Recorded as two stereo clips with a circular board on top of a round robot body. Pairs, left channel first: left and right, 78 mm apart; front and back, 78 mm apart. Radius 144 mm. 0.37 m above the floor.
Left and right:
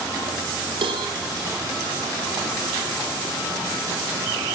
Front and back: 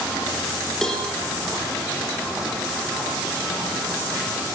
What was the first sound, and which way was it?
A cowbell, 85° right.